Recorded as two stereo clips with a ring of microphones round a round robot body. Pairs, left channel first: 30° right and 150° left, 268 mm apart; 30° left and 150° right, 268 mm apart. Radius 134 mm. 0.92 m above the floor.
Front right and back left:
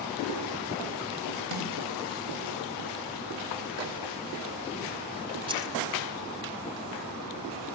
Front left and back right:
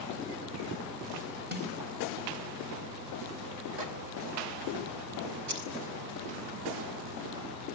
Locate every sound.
1.5 s a snare drum: 155° left, 4.5 m
3.8 s a microwave: 175° right, 2 m
5.5 s keys jangling: 135° right, 5 m